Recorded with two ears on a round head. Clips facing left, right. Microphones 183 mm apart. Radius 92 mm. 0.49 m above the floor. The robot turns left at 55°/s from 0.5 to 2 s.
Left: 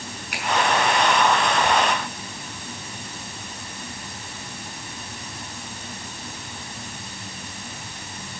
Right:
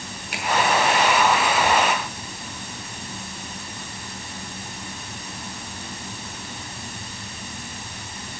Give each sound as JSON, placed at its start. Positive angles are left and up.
{"t": 0.3, "sound": "a finger snap", "side_deg": -25, "distance_m": 5.0}